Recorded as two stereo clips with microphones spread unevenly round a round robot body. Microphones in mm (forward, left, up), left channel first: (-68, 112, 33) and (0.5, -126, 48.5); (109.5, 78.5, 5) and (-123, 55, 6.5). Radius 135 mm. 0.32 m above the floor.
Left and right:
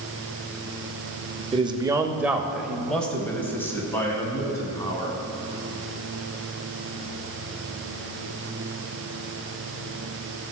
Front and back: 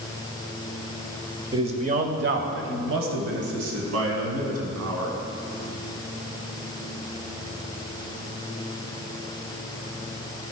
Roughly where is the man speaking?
Behind right.